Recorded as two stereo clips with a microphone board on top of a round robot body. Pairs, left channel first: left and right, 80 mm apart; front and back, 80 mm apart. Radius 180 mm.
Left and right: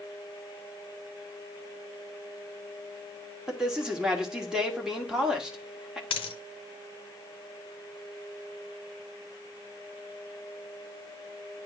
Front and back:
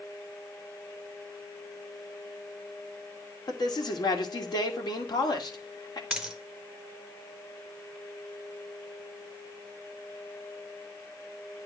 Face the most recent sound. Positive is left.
turn(degrees=95)